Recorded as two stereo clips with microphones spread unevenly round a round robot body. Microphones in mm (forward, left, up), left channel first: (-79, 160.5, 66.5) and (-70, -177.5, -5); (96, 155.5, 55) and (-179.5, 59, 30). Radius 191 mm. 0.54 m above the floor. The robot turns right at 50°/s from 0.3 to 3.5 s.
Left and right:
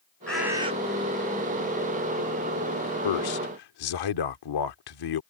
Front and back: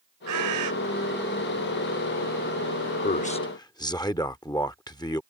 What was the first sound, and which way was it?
A bird, straight behind.